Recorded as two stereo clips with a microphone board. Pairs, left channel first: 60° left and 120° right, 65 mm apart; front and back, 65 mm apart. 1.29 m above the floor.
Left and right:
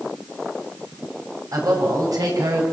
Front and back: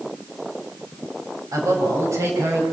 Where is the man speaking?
145° right, 7 m; by 2.6 s 130° right, 7 m.